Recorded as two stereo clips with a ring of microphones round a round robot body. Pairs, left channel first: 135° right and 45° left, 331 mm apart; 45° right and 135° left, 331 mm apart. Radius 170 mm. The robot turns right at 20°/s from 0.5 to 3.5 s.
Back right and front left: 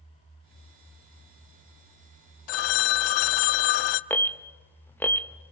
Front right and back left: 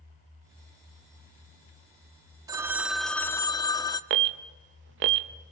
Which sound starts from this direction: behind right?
A phone ringing, at 2.5 s.